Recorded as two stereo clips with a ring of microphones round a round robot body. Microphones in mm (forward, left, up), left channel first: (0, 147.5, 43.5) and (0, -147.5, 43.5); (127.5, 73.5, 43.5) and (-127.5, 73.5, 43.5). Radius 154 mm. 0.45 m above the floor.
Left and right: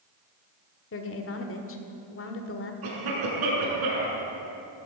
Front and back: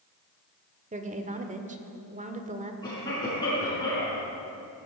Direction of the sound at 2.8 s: 75° right.